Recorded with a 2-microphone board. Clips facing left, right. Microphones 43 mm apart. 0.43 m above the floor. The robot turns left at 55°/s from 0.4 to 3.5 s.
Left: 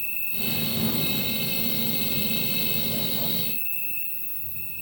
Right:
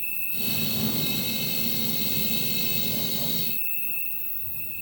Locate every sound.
0.0 s an insect: 145° left, 9.5 m; by 4.8 s 25° right, 9.5 m